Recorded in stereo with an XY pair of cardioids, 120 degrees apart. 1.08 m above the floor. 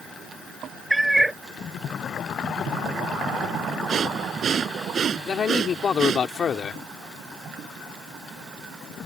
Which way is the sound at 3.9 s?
40° right.